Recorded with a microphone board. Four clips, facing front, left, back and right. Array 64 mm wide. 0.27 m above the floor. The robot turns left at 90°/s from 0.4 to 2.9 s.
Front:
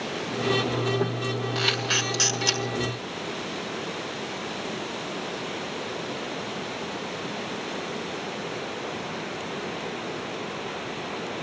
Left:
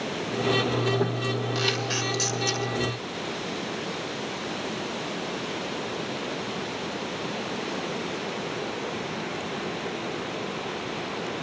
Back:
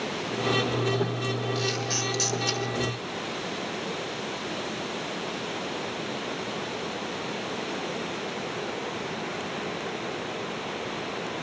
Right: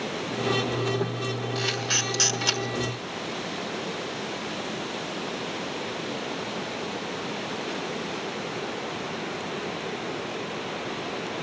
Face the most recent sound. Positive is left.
turn(degrees=-100)